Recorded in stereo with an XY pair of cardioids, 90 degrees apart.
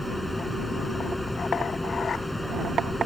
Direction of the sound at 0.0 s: 5° left.